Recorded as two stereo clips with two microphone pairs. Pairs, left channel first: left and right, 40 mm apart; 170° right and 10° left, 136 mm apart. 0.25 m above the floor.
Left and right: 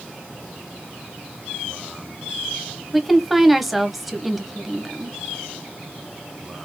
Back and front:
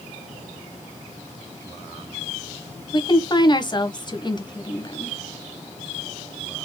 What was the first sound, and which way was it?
A woman speaking, 175° right.